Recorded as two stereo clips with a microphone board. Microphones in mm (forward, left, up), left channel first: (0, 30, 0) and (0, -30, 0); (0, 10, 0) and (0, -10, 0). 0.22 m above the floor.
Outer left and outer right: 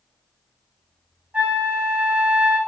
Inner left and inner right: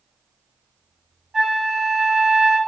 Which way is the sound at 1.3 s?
25° right (ahead or behind).